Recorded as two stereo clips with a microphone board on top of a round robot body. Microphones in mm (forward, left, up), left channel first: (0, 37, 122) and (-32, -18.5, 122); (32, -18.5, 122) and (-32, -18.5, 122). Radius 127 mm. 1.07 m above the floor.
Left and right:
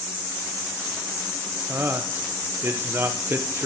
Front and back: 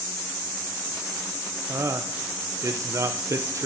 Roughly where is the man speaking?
Behind.